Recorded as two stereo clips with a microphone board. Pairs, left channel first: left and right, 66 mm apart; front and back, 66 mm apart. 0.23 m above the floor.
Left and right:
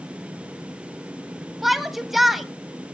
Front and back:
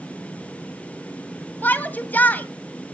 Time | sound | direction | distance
1.6 | a shout | 5° right | 1.4 m